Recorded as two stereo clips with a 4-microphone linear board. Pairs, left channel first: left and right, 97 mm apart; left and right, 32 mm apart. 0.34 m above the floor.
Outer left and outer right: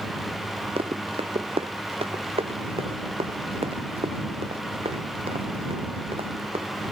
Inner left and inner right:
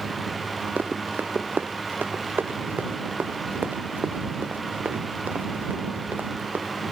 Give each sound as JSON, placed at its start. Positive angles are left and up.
{"t": 0.8, "sound": "running footsteps", "side_deg": -85}